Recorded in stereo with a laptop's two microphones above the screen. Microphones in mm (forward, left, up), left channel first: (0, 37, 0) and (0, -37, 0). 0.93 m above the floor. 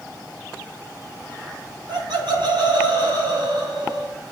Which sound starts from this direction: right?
Laughter, at 1.9 s.